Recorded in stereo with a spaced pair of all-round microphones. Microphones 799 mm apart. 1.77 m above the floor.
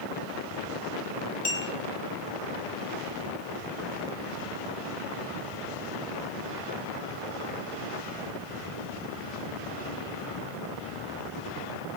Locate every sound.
1.4 s a clink: 75° left (ahead or behind), 7 m